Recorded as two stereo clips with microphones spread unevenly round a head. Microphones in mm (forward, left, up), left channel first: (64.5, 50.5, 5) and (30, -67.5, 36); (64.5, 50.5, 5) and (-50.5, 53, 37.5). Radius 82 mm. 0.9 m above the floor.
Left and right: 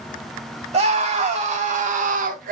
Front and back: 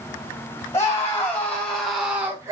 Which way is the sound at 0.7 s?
70° right.